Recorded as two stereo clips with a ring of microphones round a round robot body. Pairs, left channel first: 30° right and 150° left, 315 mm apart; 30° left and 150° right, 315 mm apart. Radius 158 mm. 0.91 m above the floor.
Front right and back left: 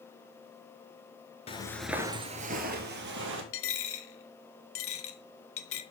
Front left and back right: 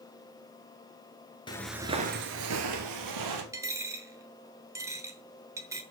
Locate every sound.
1.5 s footsteps: 10° right, 0.9 m; by 3.4 s 160° right, 1.9 m
3.5 s a dropped coin: 70° right, 0.8 m